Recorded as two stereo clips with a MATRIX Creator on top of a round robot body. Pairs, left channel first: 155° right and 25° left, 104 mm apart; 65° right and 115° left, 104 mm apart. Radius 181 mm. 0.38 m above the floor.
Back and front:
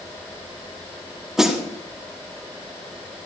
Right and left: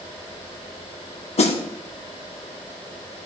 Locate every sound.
1.4 s a snare drum: 65° right, 1.7 m